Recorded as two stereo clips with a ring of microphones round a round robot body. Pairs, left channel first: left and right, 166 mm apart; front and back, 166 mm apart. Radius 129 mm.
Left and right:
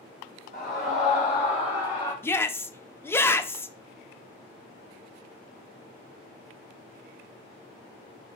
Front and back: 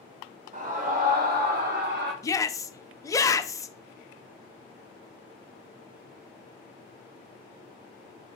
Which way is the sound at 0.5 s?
135° left.